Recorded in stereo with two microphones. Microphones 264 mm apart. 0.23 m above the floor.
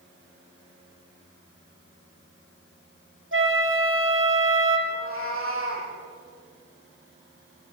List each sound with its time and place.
3.3 s a flute: 50° right (ahead or behind), 3 m
4.9 s a cat meowing: 55° right (ahead or behind), 5.5 m